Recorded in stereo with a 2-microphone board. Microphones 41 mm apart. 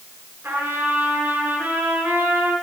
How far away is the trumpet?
About 8.5 m.